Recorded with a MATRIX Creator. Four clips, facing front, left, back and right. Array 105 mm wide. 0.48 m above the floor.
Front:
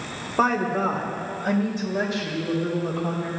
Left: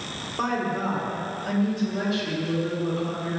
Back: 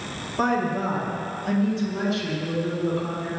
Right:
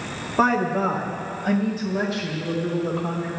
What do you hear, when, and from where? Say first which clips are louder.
0.4 s a woman speaking: right 6 dB, front 2 dB; 50° right, 2 m; by 3.3 s 15° right, 5.5 m